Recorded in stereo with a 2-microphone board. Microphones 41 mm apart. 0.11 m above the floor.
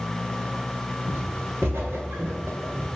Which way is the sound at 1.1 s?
75° right (ahead or behind).